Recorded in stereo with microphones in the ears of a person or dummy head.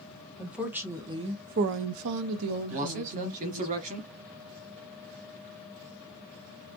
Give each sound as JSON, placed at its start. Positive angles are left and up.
{"t": 0.4, "sound": "a woman speaking", "side_deg": 0, "distance_m": 0.9}
{"t": 2.7, "sound": "a man speaking", "side_deg": -40, "distance_m": 1.2}